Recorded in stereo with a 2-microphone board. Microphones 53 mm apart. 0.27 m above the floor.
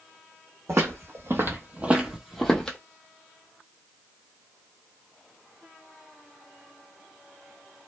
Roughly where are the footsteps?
Right.